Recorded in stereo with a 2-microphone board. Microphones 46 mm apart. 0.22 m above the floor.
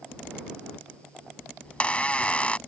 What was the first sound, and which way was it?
A squeak, 25° left (ahead or behind).